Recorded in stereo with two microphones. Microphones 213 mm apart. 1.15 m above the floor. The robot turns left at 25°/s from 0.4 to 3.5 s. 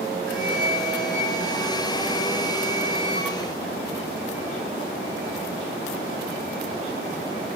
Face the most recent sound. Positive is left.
turn(degrees=-140)